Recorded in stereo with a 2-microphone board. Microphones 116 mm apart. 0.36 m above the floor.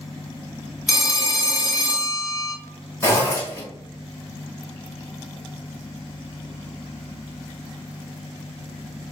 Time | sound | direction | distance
0.9 | a phone ringing | 5° right (ahead or behind) | 0.7 m
3.0 | a zipper | 25° left (ahead or behind) | 1.2 m